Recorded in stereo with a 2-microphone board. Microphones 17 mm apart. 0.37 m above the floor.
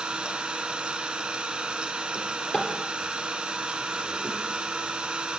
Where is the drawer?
55° left (ahead or behind), 3 m.